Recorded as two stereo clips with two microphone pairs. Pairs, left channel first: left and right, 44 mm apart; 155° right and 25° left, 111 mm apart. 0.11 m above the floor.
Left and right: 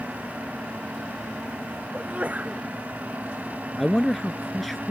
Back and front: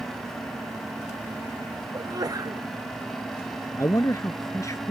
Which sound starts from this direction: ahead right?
A sneeze, at 1.9 s.